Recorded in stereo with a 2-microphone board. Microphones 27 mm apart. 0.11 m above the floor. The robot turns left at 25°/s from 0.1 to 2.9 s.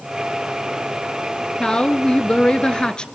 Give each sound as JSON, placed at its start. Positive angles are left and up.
{"t": 1.6, "sound": "a woman speaking", "azimuth_deg": 110, "distance_m": 1.3}